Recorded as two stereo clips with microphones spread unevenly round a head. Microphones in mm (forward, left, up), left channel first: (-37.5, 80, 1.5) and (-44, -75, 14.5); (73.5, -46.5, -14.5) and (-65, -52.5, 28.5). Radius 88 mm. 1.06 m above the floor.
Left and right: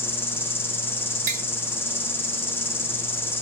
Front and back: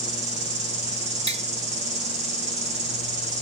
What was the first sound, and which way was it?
An insect, 145° left.